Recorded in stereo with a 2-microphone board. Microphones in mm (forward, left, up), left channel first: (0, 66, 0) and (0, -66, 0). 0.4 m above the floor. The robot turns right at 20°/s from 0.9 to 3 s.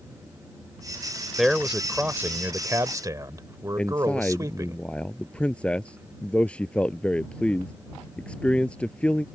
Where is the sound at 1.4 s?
175° right; by 4.8 s 145° right.